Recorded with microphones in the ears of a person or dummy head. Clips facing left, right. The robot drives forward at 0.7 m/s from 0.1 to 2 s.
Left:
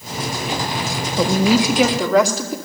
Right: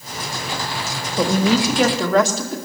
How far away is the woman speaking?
About 1.5 m.